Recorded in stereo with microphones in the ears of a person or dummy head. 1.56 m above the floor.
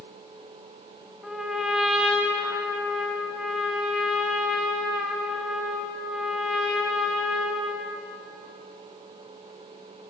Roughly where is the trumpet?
Centre.